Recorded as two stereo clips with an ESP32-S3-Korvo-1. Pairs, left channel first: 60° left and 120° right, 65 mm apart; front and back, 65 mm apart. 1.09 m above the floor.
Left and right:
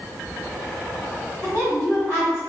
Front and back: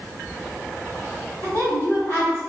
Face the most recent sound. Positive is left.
turn(degrees=-10)